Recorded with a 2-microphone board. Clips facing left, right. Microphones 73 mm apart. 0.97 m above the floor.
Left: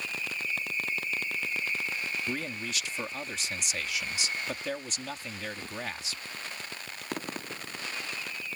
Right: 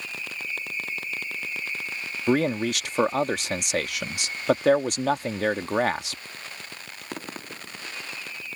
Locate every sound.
2.3 s a man speaking: 65° right (ahead or behind)